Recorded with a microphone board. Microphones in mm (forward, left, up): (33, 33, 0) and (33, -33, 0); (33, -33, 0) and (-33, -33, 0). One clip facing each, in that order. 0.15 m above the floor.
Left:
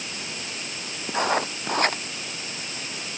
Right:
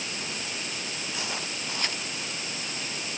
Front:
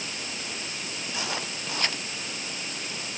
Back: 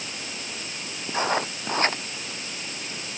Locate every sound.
1.1 s writing: 130° left